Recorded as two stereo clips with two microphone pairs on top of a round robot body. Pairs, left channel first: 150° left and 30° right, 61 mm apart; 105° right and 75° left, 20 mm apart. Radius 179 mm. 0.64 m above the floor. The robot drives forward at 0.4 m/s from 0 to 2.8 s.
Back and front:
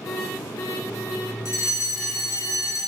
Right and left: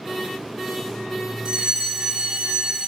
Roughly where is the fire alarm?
Left.